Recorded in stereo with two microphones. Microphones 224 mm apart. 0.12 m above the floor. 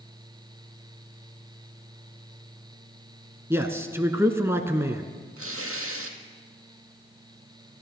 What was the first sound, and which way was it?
A man speaking, 10° right (ahead or behind).